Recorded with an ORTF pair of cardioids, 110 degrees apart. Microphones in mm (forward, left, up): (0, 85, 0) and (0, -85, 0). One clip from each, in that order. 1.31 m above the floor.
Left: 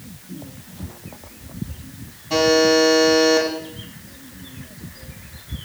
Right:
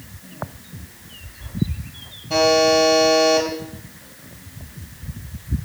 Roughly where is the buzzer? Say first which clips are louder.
Even; ahead.